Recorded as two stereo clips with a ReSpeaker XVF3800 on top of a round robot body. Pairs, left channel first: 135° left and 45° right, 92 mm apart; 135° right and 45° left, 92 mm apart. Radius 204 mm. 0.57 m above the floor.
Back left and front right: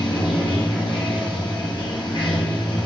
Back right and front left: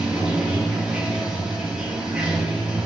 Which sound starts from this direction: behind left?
Running water, at 0.0 s.